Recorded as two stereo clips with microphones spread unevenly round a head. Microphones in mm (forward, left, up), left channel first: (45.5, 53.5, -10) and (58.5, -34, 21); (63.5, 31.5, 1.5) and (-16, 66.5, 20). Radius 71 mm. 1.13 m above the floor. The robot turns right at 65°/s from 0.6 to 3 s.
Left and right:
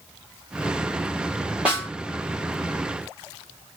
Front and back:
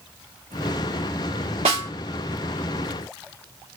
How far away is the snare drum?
About 2 m.